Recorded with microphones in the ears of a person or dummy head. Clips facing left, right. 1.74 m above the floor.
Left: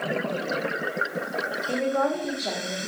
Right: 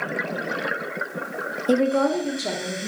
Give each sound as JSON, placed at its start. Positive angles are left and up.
{"t": 1.7, "sound": "a woman speaking", "side_deg": -50, "distance_m": 0.8}